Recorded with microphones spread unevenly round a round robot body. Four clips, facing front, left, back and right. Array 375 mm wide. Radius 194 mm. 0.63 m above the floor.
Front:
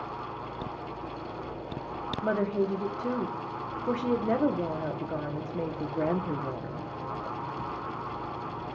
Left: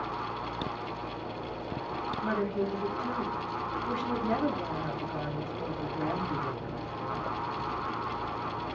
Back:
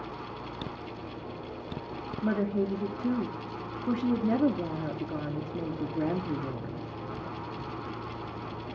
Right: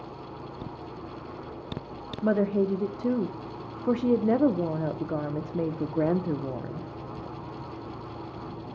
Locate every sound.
2.2 s a woman speaking: 115° right, 0.9 m